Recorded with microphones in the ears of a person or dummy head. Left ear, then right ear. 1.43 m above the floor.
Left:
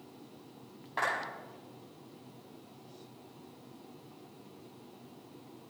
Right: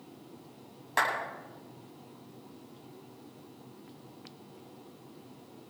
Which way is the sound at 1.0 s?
90° right.